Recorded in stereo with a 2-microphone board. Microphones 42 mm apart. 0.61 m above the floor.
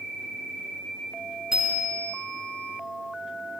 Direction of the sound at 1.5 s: 20° right (ahead or behind).